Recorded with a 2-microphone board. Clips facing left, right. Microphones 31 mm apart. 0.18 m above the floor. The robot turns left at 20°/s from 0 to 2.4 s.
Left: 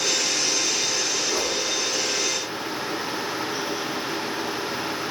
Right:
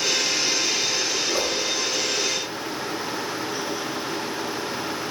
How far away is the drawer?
I don't hear a drawer.